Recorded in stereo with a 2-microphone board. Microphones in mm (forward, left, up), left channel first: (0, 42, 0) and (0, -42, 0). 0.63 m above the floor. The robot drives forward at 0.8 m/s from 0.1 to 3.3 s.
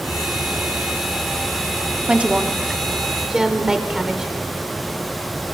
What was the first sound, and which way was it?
A woman speaking, 15° right (ahead or behind).